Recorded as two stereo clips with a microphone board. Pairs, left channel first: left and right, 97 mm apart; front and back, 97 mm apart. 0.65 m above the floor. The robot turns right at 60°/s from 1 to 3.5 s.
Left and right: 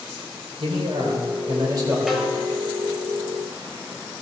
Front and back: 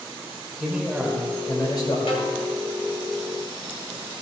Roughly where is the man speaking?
Right.